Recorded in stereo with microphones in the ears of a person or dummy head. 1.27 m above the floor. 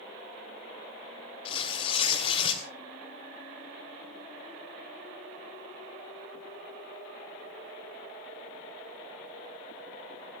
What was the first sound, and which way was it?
Tearing paper, 35° left (ahead or behind).